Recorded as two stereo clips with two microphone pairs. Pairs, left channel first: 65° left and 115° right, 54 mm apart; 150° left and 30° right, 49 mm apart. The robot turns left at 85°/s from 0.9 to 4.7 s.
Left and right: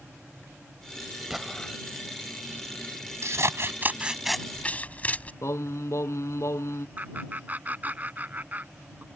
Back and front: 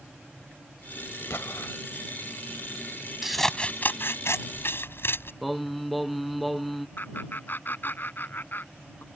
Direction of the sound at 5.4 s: 60° left.